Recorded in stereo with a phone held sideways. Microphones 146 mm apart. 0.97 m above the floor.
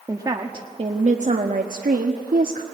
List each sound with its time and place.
0.1 s a woman speaking: 25° right (ahead or behind), 1.4 m; by 2.6 s 85° right, 1.5 m